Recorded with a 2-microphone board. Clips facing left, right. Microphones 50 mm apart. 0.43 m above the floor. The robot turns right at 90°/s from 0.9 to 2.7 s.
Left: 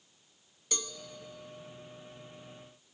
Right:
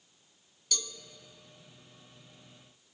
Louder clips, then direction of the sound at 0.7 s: Even; 30° left (ahead or behind).